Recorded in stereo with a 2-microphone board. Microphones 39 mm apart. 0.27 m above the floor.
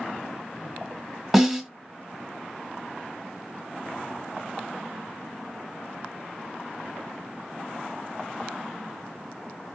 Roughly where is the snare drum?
Centre.